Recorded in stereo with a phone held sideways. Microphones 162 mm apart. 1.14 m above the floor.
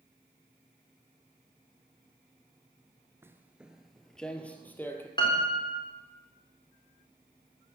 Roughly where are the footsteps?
Centre.